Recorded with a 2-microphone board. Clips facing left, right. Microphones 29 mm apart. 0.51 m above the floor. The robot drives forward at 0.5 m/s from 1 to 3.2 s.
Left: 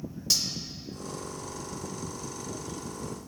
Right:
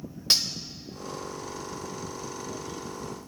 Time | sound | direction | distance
0.3 | cutlery clinking | 50° right (ahead or behind) | 0.9 m